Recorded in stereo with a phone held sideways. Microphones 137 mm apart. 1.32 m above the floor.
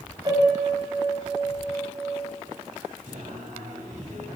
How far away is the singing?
About 7.5 m.